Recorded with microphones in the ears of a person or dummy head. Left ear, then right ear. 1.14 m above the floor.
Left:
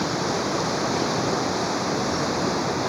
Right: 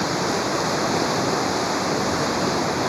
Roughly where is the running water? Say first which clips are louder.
Right 2 dB; centre.